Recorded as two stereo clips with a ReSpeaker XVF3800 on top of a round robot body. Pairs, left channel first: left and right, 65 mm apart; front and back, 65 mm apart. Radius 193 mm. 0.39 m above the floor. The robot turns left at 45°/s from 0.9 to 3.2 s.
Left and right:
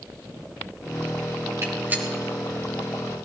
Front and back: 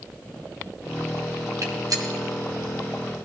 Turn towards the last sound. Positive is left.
turn(degrees=150)